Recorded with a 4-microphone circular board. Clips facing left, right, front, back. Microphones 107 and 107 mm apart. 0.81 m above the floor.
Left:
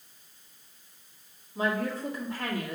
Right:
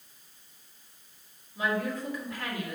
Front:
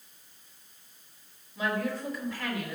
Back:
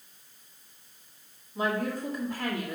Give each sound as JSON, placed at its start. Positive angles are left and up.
{"t": 1.6, "sound": "a woman speaking", "azimuth_deg": 140, "distance_m": 2.0}